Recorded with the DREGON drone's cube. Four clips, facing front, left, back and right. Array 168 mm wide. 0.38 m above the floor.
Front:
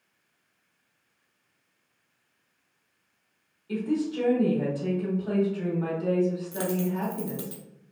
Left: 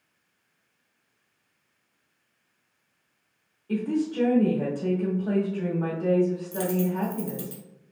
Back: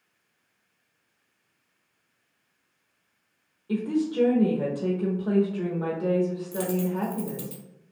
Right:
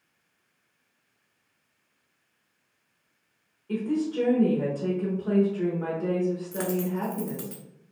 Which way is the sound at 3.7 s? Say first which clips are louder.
Left 1 dB, back 2 dB; 175° left.